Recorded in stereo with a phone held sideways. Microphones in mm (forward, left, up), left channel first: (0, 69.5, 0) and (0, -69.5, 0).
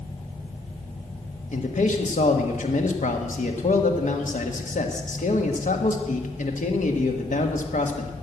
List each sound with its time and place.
1.5 s a man speaking: 65° left (ahead or behind), 1.5 m